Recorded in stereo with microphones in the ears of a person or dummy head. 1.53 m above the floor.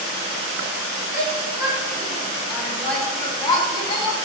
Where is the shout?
15° right (ahead or behind), 5 m; by 4.2 s 35° left (ahead or behind), 3 m.